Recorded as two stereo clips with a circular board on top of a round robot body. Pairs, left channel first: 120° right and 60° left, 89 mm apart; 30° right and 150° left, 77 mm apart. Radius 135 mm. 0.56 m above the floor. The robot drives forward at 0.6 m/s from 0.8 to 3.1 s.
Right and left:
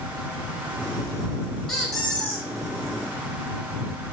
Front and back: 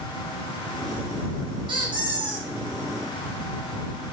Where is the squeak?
155° left, 1.8 m; by 2.5 s 160° left, 2 m.